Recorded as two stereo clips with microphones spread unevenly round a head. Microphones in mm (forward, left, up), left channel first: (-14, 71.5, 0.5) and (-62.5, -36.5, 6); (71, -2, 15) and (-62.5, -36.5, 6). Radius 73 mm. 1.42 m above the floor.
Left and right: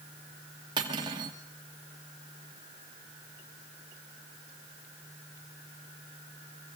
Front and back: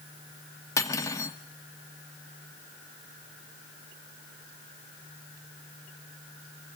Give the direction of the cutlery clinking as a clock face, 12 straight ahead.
2 o'clock.